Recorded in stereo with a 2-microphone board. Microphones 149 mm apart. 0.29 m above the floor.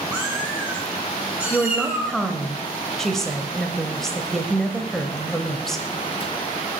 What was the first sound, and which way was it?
A cat meowing, 10° right (ahead or behind).